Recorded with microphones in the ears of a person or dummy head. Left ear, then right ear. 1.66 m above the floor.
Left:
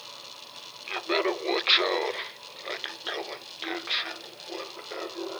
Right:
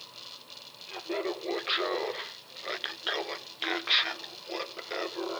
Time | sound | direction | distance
0.9 | laughter | 60° left (ahead or behind) | 0.8 m